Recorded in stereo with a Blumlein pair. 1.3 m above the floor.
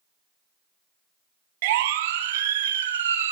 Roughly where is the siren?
Ahead right.